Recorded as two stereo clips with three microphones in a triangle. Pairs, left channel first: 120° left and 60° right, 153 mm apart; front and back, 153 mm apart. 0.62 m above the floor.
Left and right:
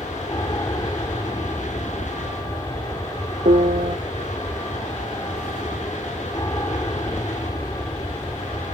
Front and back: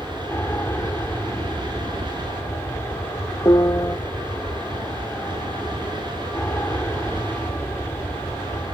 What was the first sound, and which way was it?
An aircraft, 70° left.